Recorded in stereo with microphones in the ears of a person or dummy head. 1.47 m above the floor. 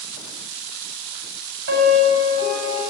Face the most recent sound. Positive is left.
turn(degrees=-70)  # may be behind; listen again after turning